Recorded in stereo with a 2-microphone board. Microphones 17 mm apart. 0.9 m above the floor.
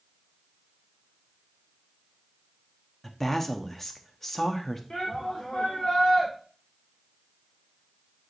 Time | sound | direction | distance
3.0 | a woman speaking | 15° left (ahead or behind) | 1.1 m
4.9 | a shout | 50° left (ahead or behind) | 3 m